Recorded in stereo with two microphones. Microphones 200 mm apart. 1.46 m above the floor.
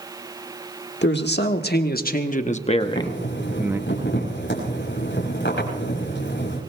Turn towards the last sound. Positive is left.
turn(degrees=70)  # may be behind; listen again after turning